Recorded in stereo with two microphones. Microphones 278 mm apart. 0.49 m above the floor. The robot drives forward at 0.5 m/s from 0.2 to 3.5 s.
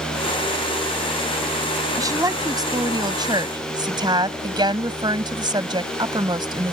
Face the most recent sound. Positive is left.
turn(degrees=-15)  # may be behind; listen again after turning